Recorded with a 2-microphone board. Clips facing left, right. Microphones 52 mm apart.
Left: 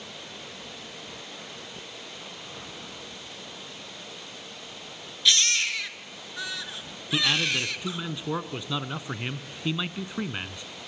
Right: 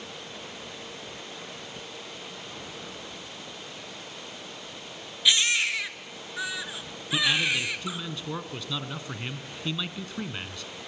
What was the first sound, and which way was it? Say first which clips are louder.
A baby crying: right 1 dB; 15° right (ahead or behind).